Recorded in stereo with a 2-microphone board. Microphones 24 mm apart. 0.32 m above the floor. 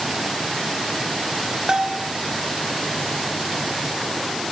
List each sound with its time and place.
1.7 s a bell: 35° right (ahead or behind), 1.3 m